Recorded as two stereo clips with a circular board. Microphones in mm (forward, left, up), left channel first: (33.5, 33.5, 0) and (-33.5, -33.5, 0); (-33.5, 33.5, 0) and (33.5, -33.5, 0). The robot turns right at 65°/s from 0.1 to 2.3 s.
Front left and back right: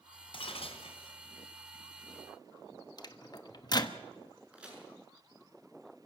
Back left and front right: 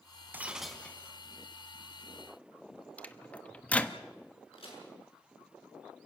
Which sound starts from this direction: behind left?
A crack, at 4.5 s.